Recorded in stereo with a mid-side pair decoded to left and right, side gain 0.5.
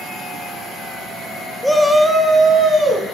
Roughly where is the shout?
Ahead.